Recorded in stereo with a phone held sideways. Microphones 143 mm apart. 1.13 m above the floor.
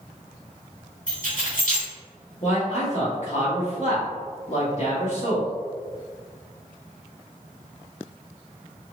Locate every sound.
1.1 s keys jangling: 65° left (ahead or behind), 1.2 m
2.4 s a man speaking: 55° left (ahead or behind), 1.1 m